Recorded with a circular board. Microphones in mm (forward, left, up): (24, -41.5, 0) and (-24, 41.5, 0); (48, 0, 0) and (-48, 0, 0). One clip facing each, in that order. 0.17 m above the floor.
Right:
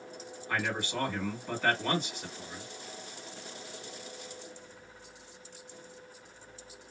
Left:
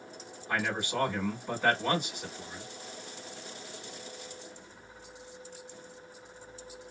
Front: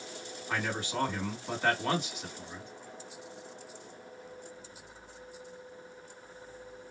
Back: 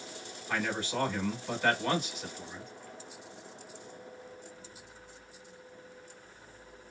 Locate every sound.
0.5 s a man speaking: 60° left, 1.8 m